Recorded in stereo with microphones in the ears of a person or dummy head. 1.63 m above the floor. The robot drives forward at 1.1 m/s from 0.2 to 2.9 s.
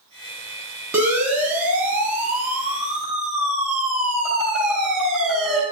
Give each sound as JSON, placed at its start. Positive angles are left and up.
{"t": 0.9, "sound": "a siren", "side_deg": -10, "distance_m": 9.5}